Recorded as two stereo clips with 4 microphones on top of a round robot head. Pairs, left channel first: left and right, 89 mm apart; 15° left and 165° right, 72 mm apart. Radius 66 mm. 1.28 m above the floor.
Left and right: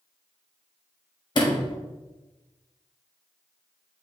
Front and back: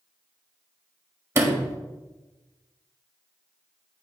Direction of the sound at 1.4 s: 140° left.